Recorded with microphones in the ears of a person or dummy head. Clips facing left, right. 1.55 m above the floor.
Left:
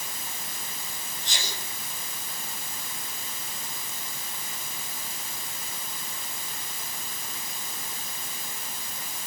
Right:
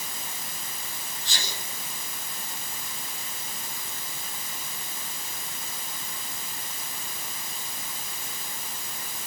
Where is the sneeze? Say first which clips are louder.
Even; 25° left (ahead or behind), 10 m.